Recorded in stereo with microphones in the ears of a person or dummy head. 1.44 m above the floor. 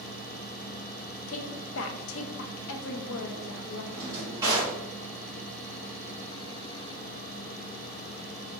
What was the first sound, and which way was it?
A woman speaking, 75° left (ahead or behind).